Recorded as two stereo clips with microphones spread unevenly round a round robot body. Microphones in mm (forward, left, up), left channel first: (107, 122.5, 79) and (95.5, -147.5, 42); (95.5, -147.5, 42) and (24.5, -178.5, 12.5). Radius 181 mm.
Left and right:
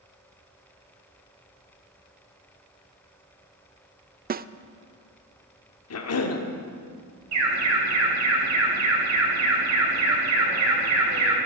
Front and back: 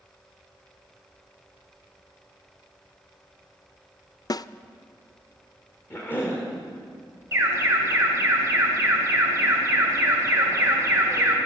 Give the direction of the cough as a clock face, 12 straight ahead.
8 o'clock.